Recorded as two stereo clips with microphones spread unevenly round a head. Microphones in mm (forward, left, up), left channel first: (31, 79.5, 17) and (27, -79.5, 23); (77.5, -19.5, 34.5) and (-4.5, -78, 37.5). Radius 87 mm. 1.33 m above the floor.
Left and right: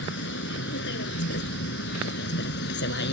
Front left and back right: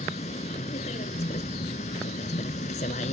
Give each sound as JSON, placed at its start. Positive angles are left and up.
{"t": 0.0, "sound": "a vehicle", "azimuth_deg": 80}